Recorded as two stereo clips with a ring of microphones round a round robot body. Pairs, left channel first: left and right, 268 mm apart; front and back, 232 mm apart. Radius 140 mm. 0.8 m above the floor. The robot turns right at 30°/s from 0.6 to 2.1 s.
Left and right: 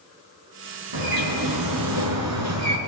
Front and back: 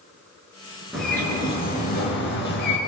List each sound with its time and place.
0.9 s a bird: 90° right, 3.5 m; by 2.8 s 55° right, 3.5 m